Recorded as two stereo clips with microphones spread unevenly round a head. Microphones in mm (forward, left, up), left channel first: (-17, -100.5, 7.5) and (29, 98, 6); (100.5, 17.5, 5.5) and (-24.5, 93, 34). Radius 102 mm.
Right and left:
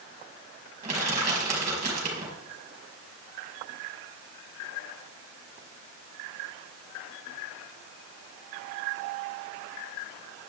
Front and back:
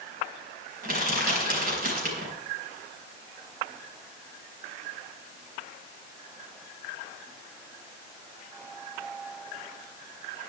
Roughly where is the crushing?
Behind left.